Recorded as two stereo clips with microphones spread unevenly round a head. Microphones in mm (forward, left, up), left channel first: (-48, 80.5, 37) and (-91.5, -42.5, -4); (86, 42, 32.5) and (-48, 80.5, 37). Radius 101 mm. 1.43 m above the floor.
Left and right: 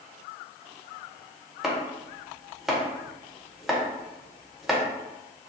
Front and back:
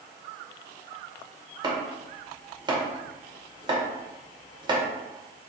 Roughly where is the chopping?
Behind left.